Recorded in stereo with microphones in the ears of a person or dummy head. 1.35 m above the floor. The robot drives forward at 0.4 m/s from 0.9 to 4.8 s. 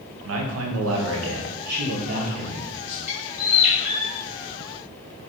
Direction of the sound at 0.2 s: 80° right.